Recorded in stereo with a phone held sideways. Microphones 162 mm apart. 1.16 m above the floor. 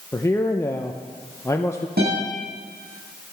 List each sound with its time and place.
0.1 s a man speaking: 15° left (ahead or behind), 0.6 m
2.0 s a guitar: 70° right (ahead or behind), 6 m